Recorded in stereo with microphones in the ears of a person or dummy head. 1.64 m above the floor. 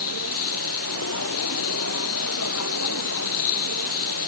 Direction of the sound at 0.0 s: 90° left.